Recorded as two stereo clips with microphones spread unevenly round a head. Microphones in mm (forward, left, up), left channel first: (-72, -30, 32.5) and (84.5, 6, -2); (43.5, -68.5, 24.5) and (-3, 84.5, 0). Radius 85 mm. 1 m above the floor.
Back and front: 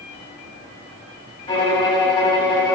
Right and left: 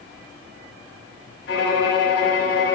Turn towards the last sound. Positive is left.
turn(degrees=-105)